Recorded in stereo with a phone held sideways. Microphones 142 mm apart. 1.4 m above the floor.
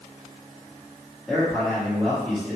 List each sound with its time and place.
1.3 s a man speaking: 5° left (ahead or behind), 2.0 m